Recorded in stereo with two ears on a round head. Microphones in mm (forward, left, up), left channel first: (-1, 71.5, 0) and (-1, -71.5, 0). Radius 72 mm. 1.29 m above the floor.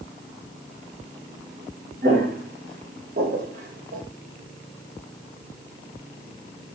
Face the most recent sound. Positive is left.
turn(degrees=-55)  # may be behind; listen again after turning